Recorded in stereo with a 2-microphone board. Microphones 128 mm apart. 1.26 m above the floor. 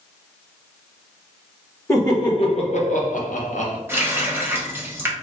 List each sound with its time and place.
1.9 s laughter: 20° left (ahead or behind), 1.2 m; by 3.8 s 65° left (ahead or behind), 1.4 m
3.9 s a running tap: 20° right (ahead or behind), 0.9 m